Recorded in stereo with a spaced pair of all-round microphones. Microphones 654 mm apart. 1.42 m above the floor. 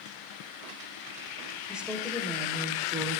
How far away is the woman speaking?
About 6.5 m.